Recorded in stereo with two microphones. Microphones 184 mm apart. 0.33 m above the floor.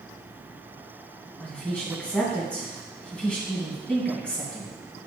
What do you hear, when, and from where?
1.4 s a woman speaking: 5° left (ahead or behind), 2.5 m